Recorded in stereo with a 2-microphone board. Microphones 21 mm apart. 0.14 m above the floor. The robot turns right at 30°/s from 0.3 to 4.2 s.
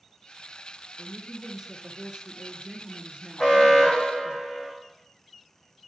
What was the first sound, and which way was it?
A woman speaking, 160° right.